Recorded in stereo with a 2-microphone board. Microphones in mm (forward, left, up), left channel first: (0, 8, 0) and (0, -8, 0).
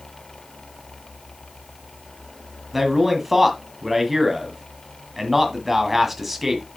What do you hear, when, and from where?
2.7 s a man speaking: 10° right (ahead or behind), 1.6 m